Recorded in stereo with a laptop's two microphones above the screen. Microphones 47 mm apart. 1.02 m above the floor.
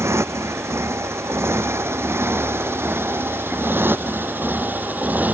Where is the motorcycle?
75° right (ahead or behind); by 5.3 s 35° right (ahead or behind).